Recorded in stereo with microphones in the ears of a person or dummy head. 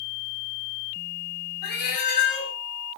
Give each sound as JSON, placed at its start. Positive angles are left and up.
{"t": 1.6, "sound": "a cat meowing", "side_deg": 55, "distance_m": 3.0}